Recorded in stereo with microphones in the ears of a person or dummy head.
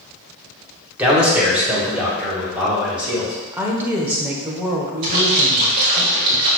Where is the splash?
40° right (ahead or behind), 2 m.